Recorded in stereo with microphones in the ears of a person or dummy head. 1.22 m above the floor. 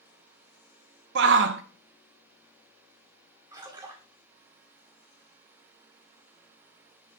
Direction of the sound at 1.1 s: 55° right (ahead or behind).